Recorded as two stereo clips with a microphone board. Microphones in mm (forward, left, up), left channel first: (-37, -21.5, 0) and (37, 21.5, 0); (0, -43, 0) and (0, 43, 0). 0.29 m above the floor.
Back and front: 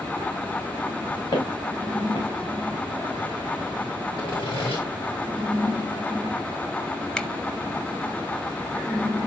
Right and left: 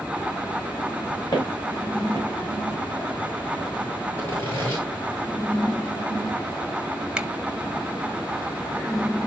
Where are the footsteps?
130° right, 5.5 m.